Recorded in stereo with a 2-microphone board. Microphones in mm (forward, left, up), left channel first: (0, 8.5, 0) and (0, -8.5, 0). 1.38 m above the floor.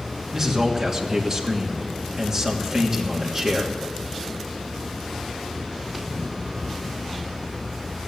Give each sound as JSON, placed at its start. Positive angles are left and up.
{"t": 0.3, "sound": "a man speaking", "side_deg": -30, "distance_m": 3.0}